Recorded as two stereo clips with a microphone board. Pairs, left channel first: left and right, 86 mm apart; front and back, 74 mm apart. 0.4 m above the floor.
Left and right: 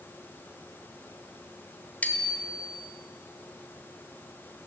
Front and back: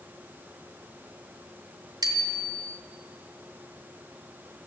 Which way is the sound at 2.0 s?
160° left.